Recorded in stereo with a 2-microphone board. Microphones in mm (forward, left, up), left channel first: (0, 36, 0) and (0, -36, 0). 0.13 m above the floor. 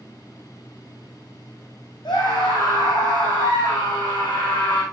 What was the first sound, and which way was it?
A scream, 80° left.